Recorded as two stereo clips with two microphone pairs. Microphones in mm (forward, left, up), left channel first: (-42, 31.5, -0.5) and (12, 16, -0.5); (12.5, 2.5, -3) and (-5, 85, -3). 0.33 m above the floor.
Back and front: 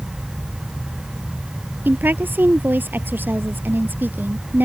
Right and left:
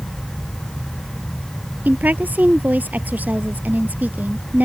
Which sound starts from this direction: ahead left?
A woman speaking, at 1.9 s.